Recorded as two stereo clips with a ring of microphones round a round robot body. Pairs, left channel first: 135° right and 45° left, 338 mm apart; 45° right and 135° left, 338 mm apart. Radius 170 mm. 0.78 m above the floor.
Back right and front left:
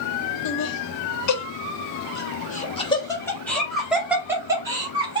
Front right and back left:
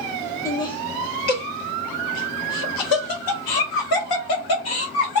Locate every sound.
0.5 s laughter: 125° right, 1.4 m; by 5.2 s 30° right, 2 m